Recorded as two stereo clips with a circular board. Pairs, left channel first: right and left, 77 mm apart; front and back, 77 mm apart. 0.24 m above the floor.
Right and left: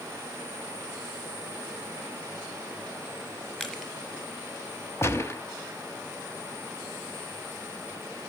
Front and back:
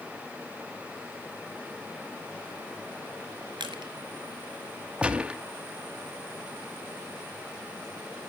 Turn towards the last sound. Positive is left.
turn(degrees=-110)